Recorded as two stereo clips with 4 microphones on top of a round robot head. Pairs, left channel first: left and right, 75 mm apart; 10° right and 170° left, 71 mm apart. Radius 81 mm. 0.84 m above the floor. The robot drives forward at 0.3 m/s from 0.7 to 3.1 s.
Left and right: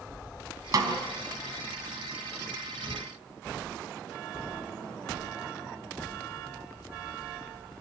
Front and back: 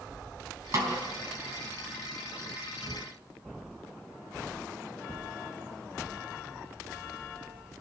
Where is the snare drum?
130° right, 4 m.